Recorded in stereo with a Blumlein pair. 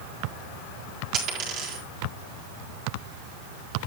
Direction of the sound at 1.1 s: 35° right.